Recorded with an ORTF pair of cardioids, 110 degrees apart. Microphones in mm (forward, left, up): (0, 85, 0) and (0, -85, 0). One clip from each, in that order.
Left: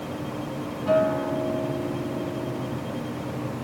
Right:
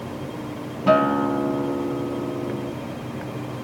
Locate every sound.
0.9 s a guitar: 60° right, 0.8 m